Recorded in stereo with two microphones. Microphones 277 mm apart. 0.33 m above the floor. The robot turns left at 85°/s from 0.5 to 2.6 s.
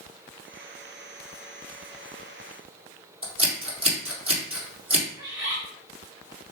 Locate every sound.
3.2 s scissors: 55° right (ahead or behind), 2 m
5.2 s a bird: 50° right (ahead or behind), 2 m